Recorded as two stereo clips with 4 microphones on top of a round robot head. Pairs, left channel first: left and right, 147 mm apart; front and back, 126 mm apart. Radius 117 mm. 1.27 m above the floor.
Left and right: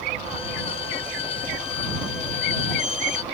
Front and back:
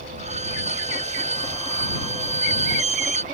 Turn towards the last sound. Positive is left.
turn(degrees=150)